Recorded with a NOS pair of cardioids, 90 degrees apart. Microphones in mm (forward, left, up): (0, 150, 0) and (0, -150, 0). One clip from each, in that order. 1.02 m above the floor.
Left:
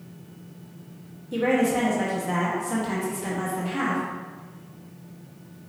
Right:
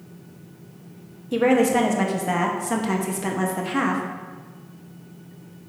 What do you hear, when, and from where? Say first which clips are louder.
1.3 s a woman speaking: right 4 dB; 40° right, 1.0 m